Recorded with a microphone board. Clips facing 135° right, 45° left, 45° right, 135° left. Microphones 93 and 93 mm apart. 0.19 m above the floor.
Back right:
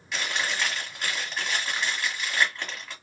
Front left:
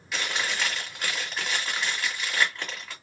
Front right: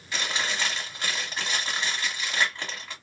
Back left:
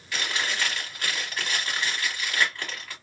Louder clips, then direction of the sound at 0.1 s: Even, even; 40° right.